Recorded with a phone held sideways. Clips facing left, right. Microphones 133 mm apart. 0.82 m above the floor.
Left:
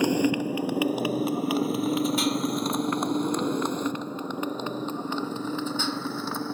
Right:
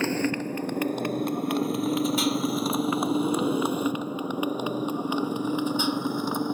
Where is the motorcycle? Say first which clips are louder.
Left 3 dB; 15° left (ahead or behind); by 6.5 s 15° right (ahead or behind).